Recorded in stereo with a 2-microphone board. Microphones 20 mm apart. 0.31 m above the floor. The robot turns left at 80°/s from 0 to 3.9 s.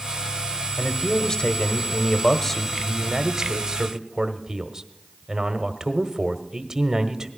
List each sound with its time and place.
0.8 s a man speaking: 160° left, 1.0 m; by 7.3 s 95° right, 1.0 m